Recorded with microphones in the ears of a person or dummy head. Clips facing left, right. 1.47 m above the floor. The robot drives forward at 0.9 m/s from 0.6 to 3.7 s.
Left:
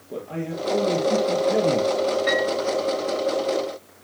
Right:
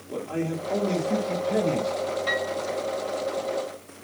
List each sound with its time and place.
0.1 s a man speaking: 5° left (ahead or behind), 1.9 m; by 1.9 s 10° left (ahead or behind), 0.7 m
2.3 s a piano: 25° left (ahead or behind), 2.5 m